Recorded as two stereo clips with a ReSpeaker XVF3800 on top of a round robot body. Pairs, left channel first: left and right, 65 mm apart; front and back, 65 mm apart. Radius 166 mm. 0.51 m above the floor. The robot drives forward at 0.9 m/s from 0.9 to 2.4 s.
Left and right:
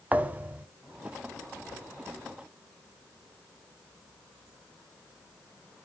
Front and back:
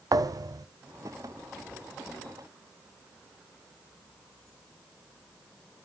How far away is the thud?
About 0.7 m.